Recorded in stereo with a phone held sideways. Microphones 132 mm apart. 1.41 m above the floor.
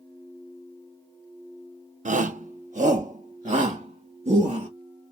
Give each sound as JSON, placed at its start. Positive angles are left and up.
{"t": 2.0, "sound": "a shout", "side_deg": -70, "distance_m": 0.6}